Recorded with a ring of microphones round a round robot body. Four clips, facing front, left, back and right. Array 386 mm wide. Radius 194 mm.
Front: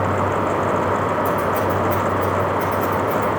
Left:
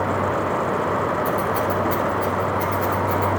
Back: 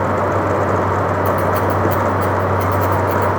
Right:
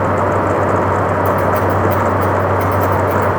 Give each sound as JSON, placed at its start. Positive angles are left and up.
{"t": 1.2, "sound": "scissors", "azimuth_deg": -140, "distance_m": 3.0}